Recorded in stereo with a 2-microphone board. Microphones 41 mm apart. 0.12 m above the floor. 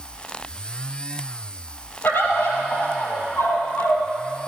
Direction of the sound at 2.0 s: 65° left (ahead or behind).